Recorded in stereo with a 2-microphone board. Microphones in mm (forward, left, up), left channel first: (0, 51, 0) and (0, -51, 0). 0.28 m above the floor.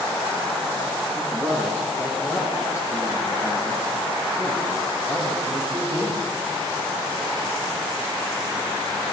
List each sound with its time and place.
1.1 s a man speaking: 20° left (ahead or behind), 9 m; by 6.2 s 45° left (ahead or behind), 15 m